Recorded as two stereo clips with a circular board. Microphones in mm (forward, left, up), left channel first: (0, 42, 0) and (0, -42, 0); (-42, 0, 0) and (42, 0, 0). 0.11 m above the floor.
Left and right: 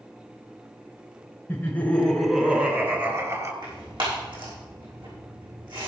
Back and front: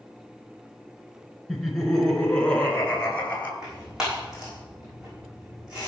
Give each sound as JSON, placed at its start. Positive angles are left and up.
{"t": 1.5, "sound": "laughter", "azimuth_deg": 95, "distance_m": 1.6}
{"t": 3.6, "sound": "tearing paper", "azimuth_deg": -80, "distance_m": 6.0}